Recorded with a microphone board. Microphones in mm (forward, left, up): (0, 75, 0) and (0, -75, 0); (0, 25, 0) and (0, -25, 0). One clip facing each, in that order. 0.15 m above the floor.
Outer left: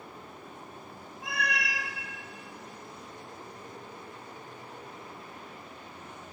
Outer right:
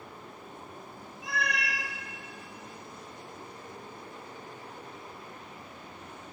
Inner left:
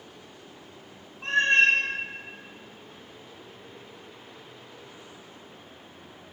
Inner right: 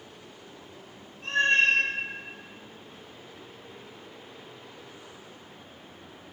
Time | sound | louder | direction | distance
1.2 | a cat meowing | even, inner left 2 dB | 60° left (ahead or behind) | 1.2 m